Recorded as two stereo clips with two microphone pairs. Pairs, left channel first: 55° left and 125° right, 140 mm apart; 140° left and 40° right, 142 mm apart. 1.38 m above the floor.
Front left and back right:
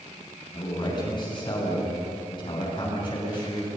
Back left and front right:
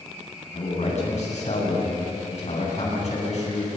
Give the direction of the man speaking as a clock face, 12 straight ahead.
8 o'clock.